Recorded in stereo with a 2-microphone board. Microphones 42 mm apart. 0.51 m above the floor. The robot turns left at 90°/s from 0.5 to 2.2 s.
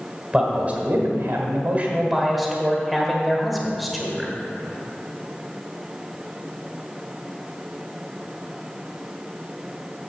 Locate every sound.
0.3 s a man speaking: 20° right, 1.7 m; by 4.3 s 175° right, 1.7 m